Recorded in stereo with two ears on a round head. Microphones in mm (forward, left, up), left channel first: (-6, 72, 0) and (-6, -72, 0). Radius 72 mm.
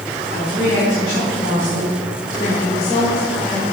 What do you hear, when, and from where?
0.3 s a woman speaking: 70° left (ahead or behind), 5.5 m; by 3.6 s 30° left (ahead or behind), 2.5 m